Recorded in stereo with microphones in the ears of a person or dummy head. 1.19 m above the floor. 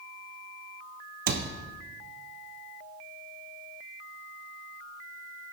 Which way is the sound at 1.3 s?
45° right (ahead or behind).